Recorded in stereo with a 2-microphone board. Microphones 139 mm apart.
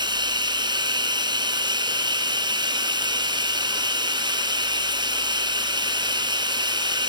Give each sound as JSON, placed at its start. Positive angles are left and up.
{"t": 0.0, "sound": "running water", "side_deg": -35, "distance_m": 1.6}